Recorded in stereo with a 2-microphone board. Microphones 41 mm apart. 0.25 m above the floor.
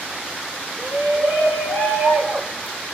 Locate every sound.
0.8 s a shout: 45° right (ahead or behind), 1.9 m; by 2.8 s 60° right (ahead or behind), 3 m